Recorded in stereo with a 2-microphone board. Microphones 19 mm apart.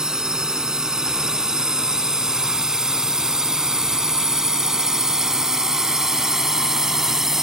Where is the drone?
35° right (ahead or behind); by 7.4 s 25° right (ahead or behind).